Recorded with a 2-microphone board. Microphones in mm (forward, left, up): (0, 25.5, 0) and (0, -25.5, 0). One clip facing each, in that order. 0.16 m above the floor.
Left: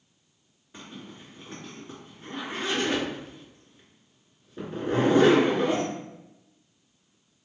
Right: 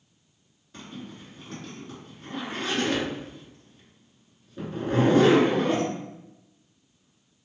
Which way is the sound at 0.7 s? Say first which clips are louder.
Right 2 dB; 15° left (ahead or behind).